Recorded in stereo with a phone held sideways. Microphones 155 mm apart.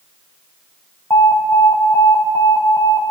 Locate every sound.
1.1 s an alarm: 20° left (ahead or behind), 1.9 m